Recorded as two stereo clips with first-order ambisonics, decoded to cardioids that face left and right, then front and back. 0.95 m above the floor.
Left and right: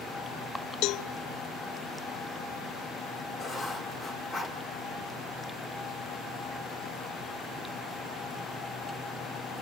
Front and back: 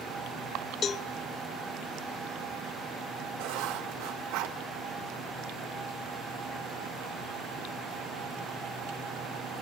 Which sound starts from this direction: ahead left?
A cowbell, at 0.8 s.